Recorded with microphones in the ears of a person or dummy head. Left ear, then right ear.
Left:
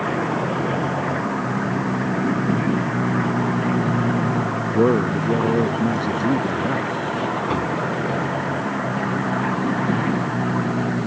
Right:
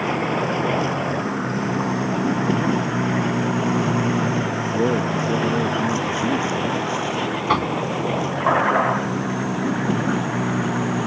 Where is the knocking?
45° right (ahead or behind).